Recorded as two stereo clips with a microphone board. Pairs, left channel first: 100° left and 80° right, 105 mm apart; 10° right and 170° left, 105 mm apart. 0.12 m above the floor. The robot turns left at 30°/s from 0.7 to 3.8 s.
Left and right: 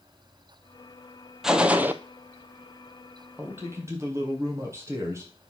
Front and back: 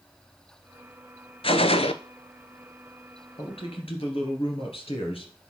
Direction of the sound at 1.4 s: 5° left.